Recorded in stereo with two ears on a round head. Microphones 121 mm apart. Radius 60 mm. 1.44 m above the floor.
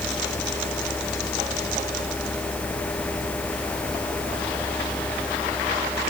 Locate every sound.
Only background noise.